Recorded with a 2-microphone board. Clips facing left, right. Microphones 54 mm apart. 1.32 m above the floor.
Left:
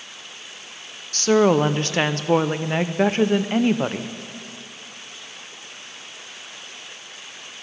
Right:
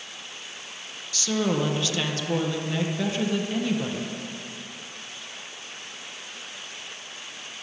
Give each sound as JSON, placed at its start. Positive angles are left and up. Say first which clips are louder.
{"t": 1.1, "sound": "a woman speaking", "louder": "left 9 dB", "side_deg": 45, "distance_m": 0.6}